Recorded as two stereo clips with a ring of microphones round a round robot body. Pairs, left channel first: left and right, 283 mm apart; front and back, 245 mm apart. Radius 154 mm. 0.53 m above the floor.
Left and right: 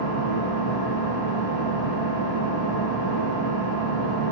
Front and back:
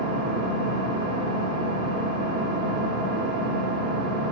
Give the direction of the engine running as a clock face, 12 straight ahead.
8 o'clock.